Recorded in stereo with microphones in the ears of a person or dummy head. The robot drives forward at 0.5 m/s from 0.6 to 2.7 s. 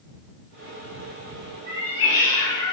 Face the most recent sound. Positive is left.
turn(degrees=-25)  # may be behind; listen again after turning